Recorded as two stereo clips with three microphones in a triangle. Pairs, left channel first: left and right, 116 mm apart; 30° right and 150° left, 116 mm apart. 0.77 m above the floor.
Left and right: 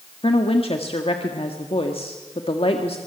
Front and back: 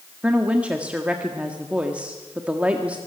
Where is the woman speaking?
75° left, 1.7 m.